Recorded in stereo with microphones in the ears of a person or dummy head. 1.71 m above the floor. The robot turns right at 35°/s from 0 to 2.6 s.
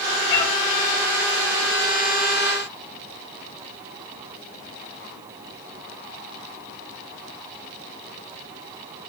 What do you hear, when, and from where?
0.3 s a cat meowing: 25° left (ahead or behind), 3.5 m; by 0.5 s 15° left (ahead or behind), 3.5 m